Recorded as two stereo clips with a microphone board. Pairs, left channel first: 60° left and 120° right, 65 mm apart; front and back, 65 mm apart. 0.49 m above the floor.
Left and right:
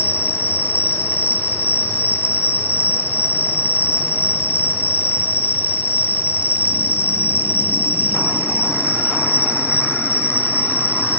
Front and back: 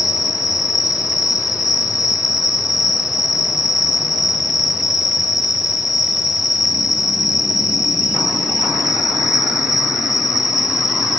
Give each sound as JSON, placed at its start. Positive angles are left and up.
{"t": 0.0, "sound": "an insect", "azimuth_deg": 10, "distance_m": 1.4}